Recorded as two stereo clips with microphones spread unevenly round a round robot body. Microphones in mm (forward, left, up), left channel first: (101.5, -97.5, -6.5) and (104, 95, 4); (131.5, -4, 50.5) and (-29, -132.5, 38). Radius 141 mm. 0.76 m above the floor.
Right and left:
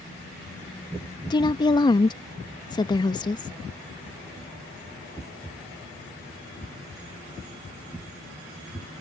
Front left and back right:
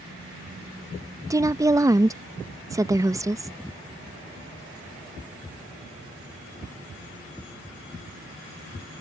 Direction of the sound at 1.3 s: 100° right.